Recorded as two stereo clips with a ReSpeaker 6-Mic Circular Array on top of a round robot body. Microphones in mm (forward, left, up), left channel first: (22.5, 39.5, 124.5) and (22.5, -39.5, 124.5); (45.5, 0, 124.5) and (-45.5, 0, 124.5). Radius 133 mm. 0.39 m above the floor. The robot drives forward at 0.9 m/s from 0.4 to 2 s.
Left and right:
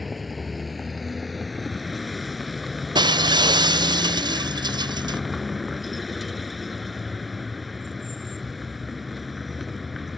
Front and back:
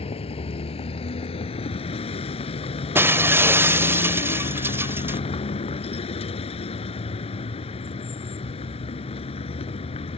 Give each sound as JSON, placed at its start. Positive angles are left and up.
{"t": 0.0, "sound": "a vehicle", "azimuth_deg": 0}
{"t": 3.0, "sound": "breaking glass", "azimuth_deg": -115}